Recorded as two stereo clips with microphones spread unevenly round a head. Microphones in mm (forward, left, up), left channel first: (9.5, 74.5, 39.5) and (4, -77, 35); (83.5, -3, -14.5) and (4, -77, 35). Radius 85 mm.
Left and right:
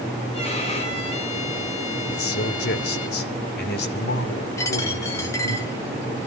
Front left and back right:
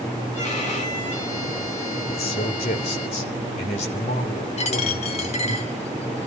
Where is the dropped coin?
15° left, 2.5 m.